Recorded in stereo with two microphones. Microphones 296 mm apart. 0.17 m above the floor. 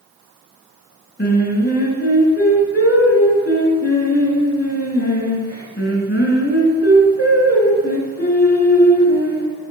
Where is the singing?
35° left (ahead or behind), 2.5 m.